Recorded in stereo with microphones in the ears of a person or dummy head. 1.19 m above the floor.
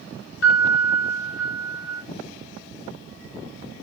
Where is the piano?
80° left, 0.7 m.